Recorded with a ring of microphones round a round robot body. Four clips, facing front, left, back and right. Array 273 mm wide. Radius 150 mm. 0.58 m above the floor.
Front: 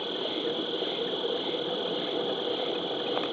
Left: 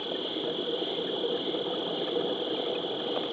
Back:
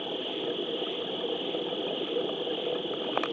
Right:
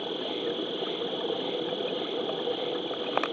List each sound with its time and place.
0.0 s an insect: 5° right